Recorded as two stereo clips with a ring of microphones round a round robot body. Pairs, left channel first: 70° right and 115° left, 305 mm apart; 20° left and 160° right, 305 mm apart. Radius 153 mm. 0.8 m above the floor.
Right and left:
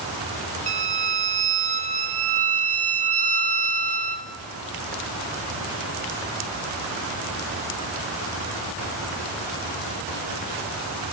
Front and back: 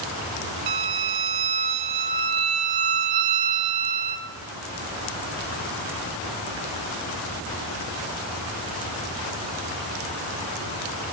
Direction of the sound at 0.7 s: Straight behind.